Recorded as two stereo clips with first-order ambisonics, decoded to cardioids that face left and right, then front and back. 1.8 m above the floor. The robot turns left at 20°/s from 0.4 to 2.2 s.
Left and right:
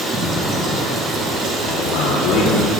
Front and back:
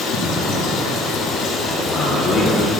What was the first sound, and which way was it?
Running water, 30° right.